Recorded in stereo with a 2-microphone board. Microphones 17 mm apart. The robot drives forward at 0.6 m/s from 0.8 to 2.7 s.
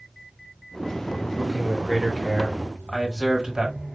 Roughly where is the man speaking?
Right.